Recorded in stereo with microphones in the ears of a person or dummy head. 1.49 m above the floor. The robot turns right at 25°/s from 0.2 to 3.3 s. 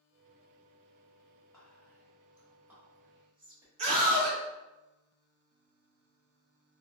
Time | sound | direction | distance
1.5 | whispering | 15° left (ahead or behind) | 1.4 m
3.8 | a scream | 40° right (ahead or behind) | 1.3 m